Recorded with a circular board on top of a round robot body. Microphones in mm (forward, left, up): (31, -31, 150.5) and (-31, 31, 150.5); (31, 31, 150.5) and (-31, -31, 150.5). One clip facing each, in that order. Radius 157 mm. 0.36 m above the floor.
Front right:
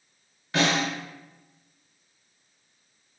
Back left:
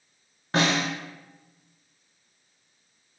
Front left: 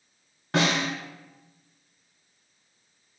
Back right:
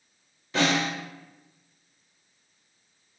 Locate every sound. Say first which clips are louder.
0.5 s a snare drum: even, even; 75° left, 1.4 m